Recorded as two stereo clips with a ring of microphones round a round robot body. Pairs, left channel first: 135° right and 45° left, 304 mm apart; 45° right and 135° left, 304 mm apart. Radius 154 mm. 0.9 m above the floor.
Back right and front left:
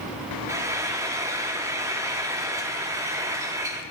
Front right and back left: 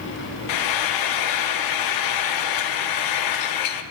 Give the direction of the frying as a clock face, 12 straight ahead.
1 o'clock.